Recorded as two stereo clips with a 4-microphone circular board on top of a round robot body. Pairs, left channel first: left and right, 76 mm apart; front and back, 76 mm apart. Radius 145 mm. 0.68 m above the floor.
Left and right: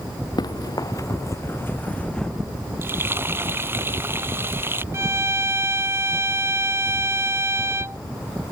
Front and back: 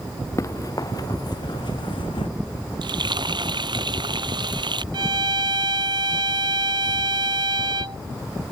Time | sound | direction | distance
0.4 | running footsteps | 55° left | ?
2.8 | frying | 150° right | ?
4.9 | a violin | 150° right | ?